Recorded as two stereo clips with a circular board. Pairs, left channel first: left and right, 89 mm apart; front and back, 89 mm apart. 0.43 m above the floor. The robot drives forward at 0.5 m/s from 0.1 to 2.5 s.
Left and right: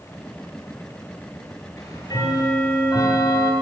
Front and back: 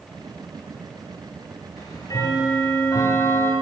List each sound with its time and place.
1.8 s ticking: 45° left, 2 m; by 3.5 s 55° left, 2.0 m